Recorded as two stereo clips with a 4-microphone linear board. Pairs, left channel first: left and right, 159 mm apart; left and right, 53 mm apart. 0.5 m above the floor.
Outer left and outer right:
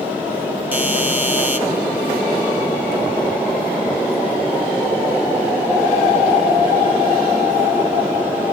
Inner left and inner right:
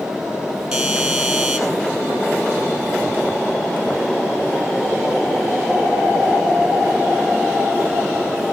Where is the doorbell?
10° right (ahead or behind), 3.5 m.